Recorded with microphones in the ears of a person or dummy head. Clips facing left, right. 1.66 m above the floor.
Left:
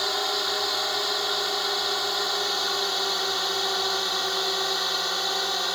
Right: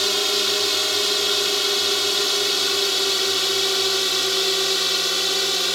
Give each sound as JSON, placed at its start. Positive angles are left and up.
{"t": 0.0, "sound": "a drone", "side_deg": -40}